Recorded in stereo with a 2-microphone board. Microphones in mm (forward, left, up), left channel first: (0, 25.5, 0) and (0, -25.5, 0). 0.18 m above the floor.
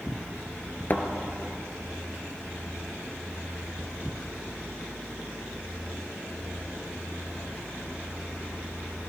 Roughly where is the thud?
Left.